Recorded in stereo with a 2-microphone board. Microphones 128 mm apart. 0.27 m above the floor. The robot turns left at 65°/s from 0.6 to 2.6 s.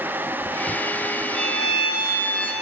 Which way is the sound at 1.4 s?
80° left.